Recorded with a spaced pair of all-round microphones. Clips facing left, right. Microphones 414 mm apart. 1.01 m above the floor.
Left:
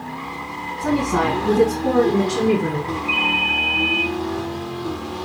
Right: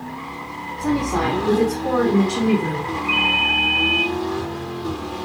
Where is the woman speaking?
20° left (ahead or behind), 7.5 m; by 2.9 s 30° left (ahead or behind), 9.5 m.